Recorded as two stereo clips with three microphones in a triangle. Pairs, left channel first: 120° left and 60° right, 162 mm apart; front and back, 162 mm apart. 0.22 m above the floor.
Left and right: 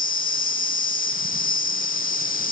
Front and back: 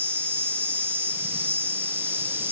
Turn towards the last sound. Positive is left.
turn(degrees=105)